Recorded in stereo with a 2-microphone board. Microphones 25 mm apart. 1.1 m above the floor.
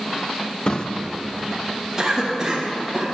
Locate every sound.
0.7 s a drawer: 35° left (ahead or behind), 0.5 m
2.0 s a cough: 20° right (ahead or behind), 1.4 m